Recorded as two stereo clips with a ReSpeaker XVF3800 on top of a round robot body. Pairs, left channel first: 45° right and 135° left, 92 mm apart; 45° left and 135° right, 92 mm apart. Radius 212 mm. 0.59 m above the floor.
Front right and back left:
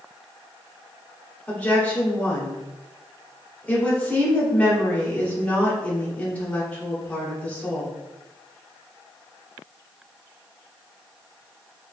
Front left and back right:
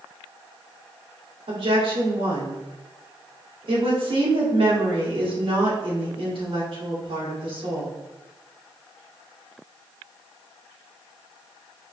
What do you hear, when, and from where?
1.5 s a woman speaking: 120° right, 2 m